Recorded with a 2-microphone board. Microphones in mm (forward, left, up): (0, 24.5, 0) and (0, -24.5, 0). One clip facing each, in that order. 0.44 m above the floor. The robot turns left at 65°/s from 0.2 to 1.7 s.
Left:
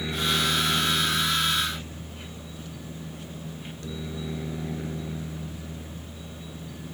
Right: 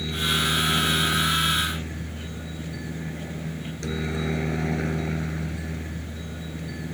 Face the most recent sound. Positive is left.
turn(degrees=-80)